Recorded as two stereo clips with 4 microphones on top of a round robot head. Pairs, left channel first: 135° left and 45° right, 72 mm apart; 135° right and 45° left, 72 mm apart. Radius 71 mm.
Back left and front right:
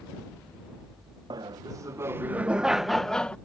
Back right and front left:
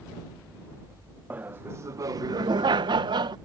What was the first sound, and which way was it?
Laughter, 20° right.